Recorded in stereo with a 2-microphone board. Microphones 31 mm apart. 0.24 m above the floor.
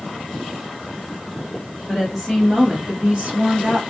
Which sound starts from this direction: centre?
A woman speaking, at 1.9 s.